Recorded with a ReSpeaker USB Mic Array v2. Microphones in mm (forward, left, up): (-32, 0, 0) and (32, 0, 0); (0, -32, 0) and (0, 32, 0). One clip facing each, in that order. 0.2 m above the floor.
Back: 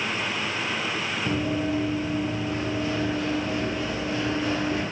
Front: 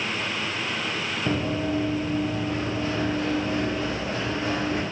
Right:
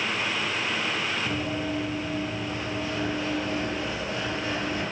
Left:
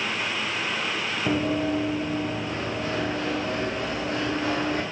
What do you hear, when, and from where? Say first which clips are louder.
1.3 s running footsteps: even, left 5 dB; 50° left, 3 m